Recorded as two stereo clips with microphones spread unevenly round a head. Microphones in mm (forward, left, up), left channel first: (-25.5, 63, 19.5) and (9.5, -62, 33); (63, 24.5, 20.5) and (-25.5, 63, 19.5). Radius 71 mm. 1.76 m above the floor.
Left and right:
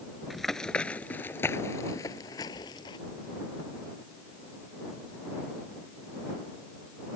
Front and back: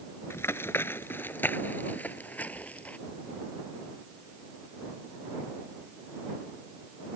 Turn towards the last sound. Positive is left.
turn(degrees=45)